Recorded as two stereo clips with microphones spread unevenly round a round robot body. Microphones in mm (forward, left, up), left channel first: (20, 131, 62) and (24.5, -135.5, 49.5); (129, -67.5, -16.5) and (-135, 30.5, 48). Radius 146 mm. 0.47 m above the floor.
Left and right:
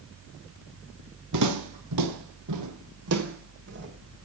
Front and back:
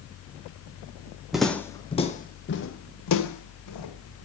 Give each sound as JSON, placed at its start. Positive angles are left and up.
{"t": 1.3, "sound": "footsteps", "azimuth_deg": -120, "distance_m": 1.0}